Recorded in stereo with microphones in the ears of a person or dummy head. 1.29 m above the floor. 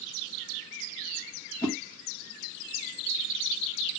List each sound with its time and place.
1.6 s a whoosh: 15° right (ahead or behind), 1.0 m